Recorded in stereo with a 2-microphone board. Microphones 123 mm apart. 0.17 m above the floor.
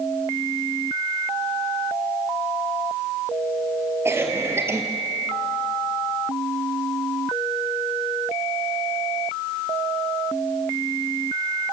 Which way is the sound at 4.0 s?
20° right (ahead or behind).